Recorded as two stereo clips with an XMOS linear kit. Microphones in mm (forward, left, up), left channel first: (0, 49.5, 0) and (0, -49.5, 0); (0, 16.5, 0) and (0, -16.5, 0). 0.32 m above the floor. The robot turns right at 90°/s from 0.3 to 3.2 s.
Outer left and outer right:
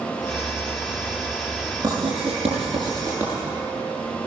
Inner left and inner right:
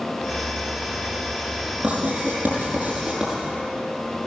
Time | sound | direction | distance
1.8 | writing | 45° right (ahead or behind) | 6.5 m